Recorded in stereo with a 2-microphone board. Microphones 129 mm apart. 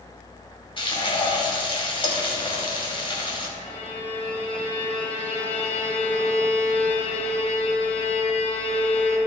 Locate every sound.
0.8 s frying: 40° left (ahead or behind), 1.6 m
3.6 s a violin: 55° left (ahead or behind), 2 m